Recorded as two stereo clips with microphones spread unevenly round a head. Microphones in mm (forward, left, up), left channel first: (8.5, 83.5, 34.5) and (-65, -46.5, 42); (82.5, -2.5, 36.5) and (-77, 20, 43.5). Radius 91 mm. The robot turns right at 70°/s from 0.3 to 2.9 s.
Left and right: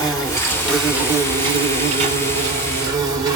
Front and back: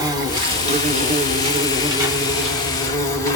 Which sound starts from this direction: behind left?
An insect, at 0.0 s.